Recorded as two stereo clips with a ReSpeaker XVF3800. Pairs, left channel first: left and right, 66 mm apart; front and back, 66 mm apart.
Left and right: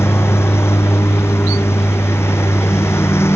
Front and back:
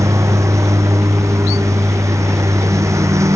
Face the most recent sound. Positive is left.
turn(degrees=140)